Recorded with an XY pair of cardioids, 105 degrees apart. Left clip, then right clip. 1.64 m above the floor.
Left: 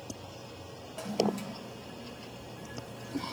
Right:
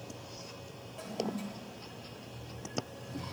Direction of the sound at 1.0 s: 65° left.